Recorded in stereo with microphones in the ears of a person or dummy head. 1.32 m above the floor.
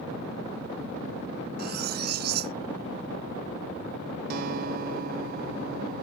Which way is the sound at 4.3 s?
55° right (ahead or behind).